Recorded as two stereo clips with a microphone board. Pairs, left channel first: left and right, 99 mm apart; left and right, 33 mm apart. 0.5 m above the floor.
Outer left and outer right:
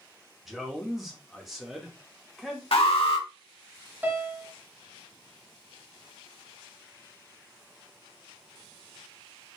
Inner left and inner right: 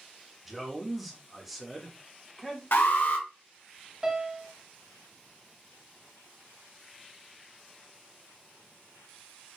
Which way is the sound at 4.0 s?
20° right (ahead or behind).